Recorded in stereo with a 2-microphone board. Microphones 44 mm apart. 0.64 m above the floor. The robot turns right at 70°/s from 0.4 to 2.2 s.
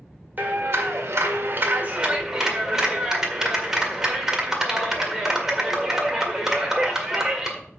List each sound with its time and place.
0.4 s a clap: 140° right, 1.9 m; by 7.6 s 15° right, 1.9 m